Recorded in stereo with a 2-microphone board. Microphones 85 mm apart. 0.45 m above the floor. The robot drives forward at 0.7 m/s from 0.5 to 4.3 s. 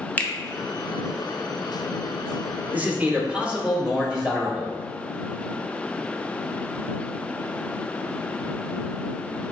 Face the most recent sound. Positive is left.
turn(degrees=-10)  # may be behind; listen again after turning